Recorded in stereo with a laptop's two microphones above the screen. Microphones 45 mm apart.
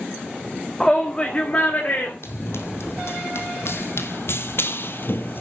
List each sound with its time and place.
0.8 s a shout: 5° left (ahead or behind), 1.8 m; by 2.1 s 40° left (ahead or behind), 3.5 m
2.2 s running footsteps: 65° left (ahead or behind), 3 m; by 5.4 s 50° left (ahead or behind), 1.3 m